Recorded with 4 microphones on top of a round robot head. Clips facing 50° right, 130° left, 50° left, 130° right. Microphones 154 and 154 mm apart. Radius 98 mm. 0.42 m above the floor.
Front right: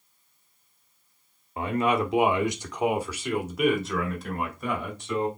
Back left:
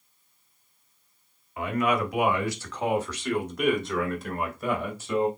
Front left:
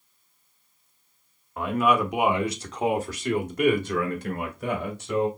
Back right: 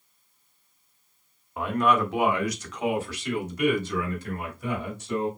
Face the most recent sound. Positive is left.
turn(degrees=45)